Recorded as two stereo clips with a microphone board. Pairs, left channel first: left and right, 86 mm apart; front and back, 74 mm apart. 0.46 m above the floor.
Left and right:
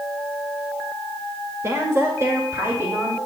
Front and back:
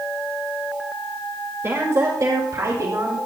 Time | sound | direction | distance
1.6 | a woman speaking | 135° right | 1.4 m